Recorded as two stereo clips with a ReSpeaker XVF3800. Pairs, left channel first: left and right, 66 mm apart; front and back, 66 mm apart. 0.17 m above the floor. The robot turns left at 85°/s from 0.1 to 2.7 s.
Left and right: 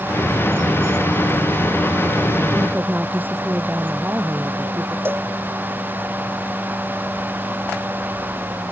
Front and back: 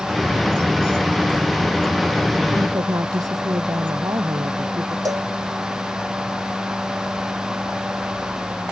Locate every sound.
2.5 s a woman speaking: 140° right; by 5.0 s 155° right
5.0 s a cowbell: 150° right